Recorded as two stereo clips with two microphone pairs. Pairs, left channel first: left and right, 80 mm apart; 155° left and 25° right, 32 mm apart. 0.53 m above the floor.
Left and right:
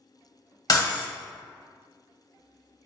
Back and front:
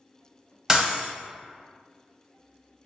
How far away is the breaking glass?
About 1.0 m.